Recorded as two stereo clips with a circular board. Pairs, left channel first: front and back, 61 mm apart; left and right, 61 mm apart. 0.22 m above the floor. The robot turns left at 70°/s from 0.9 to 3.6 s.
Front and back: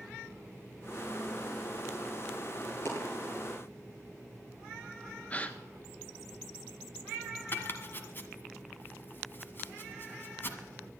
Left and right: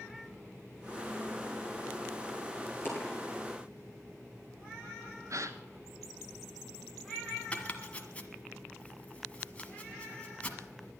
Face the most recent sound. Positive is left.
turn(degrees=30)